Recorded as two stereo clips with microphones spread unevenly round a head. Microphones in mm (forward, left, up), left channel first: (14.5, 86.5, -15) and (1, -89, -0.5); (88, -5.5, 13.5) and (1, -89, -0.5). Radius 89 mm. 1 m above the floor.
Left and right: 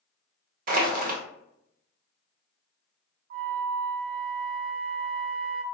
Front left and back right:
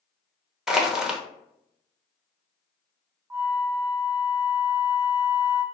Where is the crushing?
50° right, 0.8 m.